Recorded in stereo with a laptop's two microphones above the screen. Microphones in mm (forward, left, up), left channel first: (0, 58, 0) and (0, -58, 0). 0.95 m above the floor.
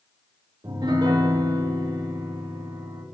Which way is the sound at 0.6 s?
40° right (ahead or behind).